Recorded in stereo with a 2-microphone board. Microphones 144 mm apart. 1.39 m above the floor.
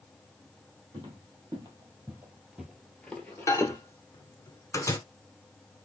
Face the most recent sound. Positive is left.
turn(degrees=20)  # may be behind; listen again after turning